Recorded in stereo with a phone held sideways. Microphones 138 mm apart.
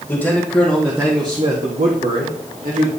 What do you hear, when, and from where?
0.1 s a man speaking: 15° left (ahead or behind), 2.5 m; by 2.9 s 75° right (ahead or behind), 2.5 m